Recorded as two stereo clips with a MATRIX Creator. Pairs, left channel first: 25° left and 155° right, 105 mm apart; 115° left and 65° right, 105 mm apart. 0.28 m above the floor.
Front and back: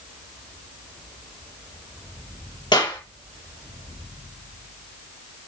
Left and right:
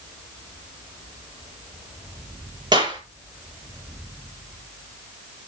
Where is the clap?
25° right, 6 m.